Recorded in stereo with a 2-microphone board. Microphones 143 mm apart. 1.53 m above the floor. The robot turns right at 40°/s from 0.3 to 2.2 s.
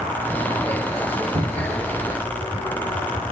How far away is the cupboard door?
About 3.5 m.